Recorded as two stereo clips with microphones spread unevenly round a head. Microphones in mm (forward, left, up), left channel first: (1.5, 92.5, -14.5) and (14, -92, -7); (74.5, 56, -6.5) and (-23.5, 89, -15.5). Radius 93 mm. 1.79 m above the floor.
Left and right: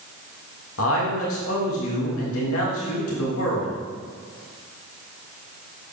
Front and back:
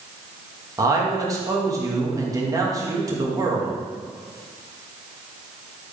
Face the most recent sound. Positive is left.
turn(degrees=105)